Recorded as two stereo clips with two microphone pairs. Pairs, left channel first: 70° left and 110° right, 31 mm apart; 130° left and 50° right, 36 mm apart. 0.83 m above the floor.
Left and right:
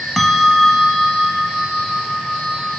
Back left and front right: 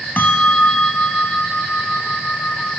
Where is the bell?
155° left, 1.5 m.